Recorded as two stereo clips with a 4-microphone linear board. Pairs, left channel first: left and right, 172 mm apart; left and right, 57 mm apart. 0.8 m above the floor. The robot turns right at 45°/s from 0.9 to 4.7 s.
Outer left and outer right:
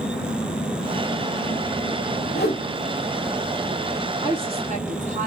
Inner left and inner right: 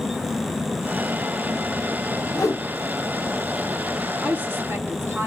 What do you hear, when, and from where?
2.4 s a whoosh: 75° left (ahead or behind), 1.5 m; by 2.7 s 70° left (ahead or behind), 1.5 m
4.2 s a woman speaking: 25° right (ahead or behind), 1.9 m; by 5.3 s 40° right (ahead or behind), 1.9 m